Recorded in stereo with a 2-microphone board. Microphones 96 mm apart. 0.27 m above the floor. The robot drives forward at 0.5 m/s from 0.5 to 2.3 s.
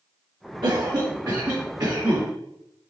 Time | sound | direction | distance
0.6 | a cough | 45° right (ahead or behind) | 2 m